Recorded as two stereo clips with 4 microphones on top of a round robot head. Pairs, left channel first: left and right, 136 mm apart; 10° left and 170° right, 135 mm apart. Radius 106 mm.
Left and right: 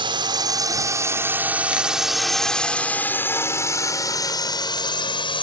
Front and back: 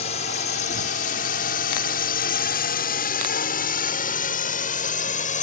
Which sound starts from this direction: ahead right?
A drone, at 0.0 s.